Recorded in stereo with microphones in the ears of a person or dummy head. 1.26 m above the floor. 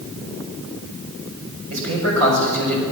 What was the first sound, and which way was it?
A man speaking, 75° right (ahead or behind).